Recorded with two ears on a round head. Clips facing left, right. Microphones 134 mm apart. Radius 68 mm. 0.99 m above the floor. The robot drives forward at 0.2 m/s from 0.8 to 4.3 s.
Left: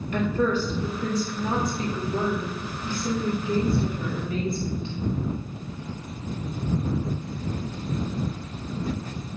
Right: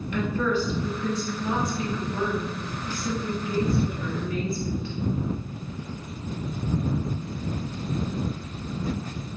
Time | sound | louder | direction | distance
0.1 | a woman speaking | left 2 dB | 35° left (ahead or behind) | 0.9 m